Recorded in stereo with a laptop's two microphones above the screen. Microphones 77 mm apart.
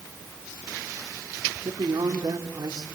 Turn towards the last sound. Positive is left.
turn(degrees=-55)  # may be behind; listen again after turning